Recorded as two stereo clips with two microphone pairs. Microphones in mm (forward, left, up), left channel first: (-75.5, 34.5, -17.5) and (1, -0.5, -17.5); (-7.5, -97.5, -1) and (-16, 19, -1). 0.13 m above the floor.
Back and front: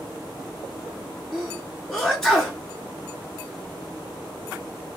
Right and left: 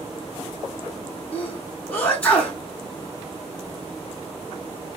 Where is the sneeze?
135° right, 1.2 m.